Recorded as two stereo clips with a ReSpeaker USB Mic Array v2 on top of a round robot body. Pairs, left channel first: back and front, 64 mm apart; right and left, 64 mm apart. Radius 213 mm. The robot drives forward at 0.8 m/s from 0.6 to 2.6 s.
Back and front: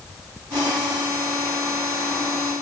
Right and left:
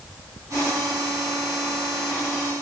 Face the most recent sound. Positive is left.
No sound to turn to.